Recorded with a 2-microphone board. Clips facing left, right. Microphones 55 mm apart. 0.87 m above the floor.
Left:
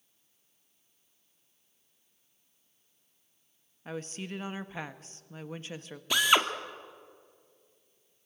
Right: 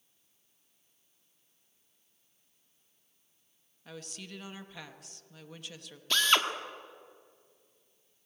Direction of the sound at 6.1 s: 15° left (ahead or behind).